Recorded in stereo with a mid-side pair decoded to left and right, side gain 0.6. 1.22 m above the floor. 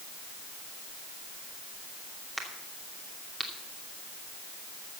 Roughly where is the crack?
Ahead.